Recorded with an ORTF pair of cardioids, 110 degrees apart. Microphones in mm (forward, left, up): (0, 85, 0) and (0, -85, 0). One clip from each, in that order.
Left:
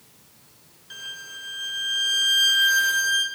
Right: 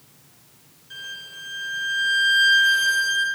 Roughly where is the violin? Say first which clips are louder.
Right 1 dB; ahead left.